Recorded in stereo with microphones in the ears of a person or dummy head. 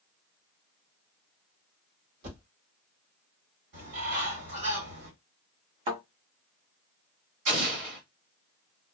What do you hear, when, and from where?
2.2 s a thud: 60° right (ahead or behind), 1.8 m
3.7 s a bird: 60° right (ahead or behind), 2.5 m
5.9 s a thud: 40° right (ahead or behind), 1.4 m
7.5 s an explosion: 40° right (ahead or behind), 1.5 m